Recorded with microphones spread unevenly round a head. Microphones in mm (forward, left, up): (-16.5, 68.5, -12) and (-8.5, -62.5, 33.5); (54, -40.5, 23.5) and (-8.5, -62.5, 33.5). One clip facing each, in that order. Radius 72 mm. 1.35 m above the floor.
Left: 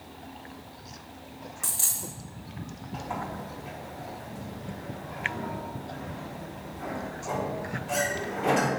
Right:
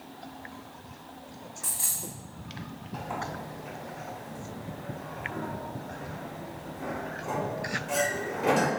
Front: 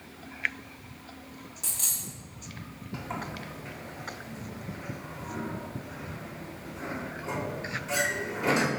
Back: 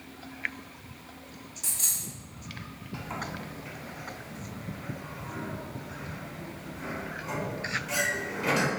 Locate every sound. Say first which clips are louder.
1.6 s a dropped coin: left 1 dB, back 2 dB; 35° left, 1.3 m
2.9 s a sliding door: left 1 dB, even; 35° right, 1.1 m